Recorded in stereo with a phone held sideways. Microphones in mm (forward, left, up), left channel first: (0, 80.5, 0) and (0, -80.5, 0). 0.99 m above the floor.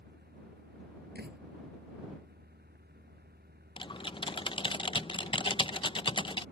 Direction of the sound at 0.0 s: 80° right.